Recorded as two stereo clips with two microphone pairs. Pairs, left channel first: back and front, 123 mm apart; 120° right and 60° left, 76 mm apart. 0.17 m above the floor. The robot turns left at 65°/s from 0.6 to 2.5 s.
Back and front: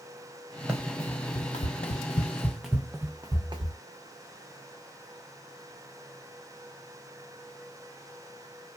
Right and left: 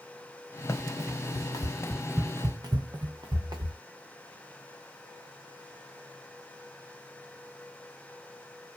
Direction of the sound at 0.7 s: 80° right.